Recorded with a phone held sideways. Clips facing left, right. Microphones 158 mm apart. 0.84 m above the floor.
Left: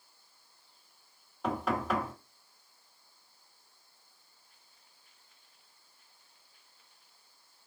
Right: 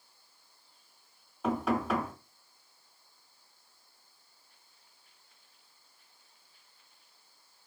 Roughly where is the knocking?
Centre.